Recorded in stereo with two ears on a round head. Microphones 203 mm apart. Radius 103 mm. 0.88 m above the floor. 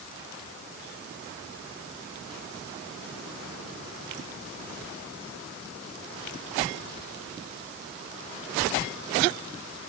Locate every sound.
Only background noise.